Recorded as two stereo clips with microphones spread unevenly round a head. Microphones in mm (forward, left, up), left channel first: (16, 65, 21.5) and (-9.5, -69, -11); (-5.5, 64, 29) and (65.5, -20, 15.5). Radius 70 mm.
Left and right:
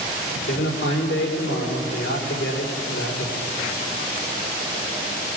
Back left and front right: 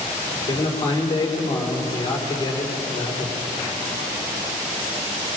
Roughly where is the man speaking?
Left.